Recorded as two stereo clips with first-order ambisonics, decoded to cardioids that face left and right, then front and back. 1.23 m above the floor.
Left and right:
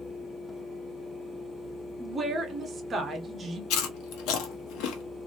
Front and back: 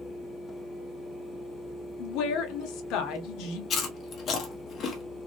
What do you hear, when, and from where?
2.0 s a woman speaking: 20° right, 1.2 m
3.7 s chewing: 60° left, 1.2 m